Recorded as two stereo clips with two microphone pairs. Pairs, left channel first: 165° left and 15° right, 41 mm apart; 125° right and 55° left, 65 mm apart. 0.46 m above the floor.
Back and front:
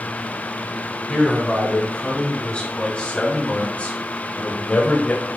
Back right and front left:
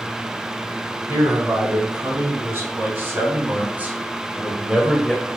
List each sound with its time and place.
1.1 s a man speaking: 95° left, 4.5 m; by 5.3 s 145° left, 1.7 m